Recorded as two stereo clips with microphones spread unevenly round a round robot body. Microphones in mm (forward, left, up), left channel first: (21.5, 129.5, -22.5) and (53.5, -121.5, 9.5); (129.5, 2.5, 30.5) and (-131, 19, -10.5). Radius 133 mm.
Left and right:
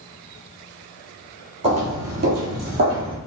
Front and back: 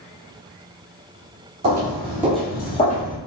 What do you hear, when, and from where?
1.6 s footsteps: 135° right, 1.0 m; by 3.2 s 45° right, 1.3 m